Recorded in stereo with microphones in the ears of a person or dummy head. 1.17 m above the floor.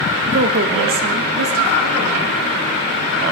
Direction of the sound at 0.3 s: 40° right (ahead or behind).